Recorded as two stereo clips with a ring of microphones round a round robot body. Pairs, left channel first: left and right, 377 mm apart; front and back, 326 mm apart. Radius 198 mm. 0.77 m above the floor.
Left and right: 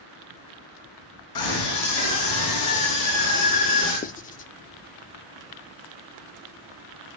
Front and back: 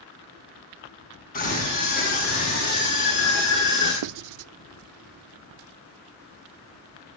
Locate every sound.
1.4 s a scream: 65° left, 8 m; by 3.9 s 55° left, 10 m
4.0 s writing: 160° left, 0.6 m